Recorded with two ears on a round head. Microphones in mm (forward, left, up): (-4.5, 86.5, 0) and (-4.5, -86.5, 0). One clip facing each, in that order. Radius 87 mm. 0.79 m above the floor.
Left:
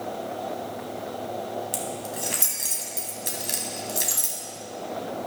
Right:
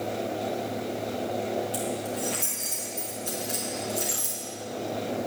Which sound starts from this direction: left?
Keys jangling, at 1.7 s.